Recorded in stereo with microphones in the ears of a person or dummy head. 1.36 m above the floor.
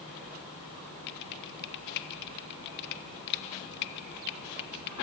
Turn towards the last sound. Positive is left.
turn(degrees=60)  # may be behind; listen again after turning